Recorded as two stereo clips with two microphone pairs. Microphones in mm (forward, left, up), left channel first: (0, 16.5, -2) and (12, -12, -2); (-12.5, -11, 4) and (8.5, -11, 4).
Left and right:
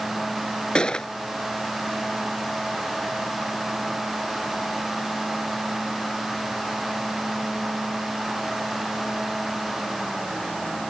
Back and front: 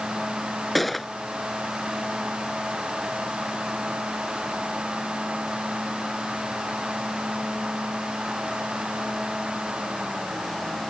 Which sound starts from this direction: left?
A gunshot, at 0.8 s.